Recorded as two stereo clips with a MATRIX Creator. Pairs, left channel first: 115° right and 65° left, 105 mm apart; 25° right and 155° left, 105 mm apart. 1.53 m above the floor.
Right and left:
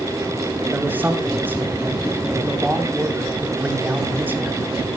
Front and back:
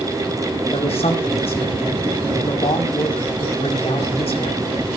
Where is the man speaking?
5° right, 4.5 m.